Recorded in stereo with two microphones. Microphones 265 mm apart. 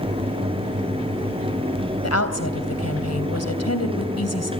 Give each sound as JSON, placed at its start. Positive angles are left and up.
{"t": 2.0, "sound": "a woman speaking", "side_deg": 75, "distance_m": 3.0}